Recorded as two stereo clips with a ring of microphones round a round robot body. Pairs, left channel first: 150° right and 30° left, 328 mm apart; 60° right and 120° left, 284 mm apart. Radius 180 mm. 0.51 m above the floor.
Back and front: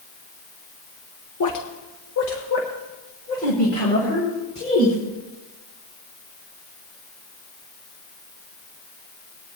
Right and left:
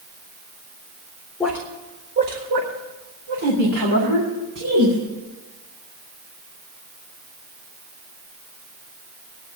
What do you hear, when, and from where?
1.4 s a woman speaking: 145° right, 1.3 m; by 5.0 s 135° left, 5 m